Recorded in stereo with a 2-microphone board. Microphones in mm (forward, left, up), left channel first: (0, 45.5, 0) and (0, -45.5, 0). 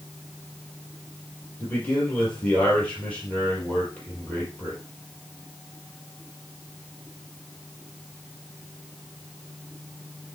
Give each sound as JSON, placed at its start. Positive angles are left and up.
{"t": 1.6, "sound": "a man speaking", "side_deg": 15, "distance_m": 5.0}